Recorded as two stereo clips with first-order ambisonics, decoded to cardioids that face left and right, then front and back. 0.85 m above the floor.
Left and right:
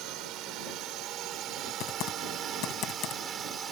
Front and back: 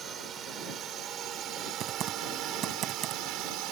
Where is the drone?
120° right; by 3.7 s 155° right.